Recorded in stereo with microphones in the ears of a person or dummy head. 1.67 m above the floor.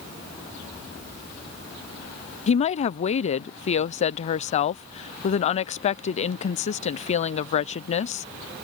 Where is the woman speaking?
35° left (ahead or behind).